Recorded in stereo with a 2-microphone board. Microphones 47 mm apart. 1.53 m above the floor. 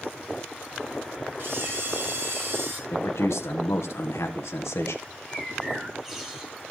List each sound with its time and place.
1.4 s a camera shutter: 55° right (ahead or behind), 4.5 m
2.9 s a man speaking: 85° left, 1.3 m
5.0 s a bird: 5° right (ahead or behind), 2.5 m